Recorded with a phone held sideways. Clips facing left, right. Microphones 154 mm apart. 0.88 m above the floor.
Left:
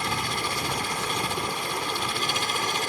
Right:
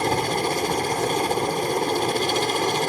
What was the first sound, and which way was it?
A helicopter, 45° right (ahead or behind).